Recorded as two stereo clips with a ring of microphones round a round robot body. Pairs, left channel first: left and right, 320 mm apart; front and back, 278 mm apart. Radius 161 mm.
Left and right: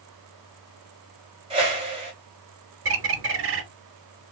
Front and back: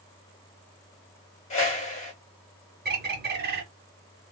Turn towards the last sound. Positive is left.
turn(degrees=-130)